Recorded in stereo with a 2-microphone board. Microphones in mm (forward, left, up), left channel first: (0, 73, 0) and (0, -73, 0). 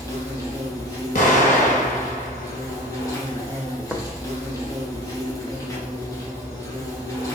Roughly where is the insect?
Left.